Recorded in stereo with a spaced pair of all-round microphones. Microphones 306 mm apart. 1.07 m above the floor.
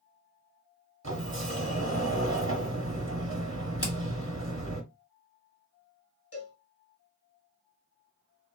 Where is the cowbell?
50° left (ahead or behind), 1.5 m.